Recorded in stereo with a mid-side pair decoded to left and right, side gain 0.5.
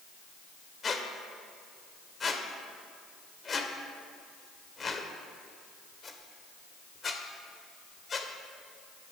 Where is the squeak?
35° left, 1.6 m.